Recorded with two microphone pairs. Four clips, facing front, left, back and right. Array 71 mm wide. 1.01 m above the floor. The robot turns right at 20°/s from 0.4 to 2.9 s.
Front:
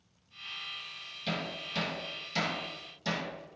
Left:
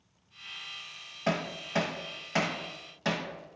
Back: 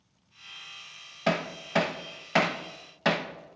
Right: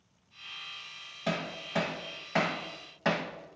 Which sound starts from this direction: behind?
Hammering, at 1.3 s.